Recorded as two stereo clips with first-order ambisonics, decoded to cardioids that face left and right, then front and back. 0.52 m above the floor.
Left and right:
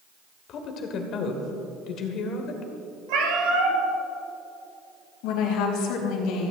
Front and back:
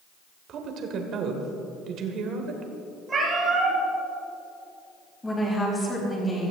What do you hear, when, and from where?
0.5 s a woman speaking: 135° left, 1.9 m
3.1 s a cat meowing: 110° right, 3 m
5.2 s a woman speaking: 80° left, 4 m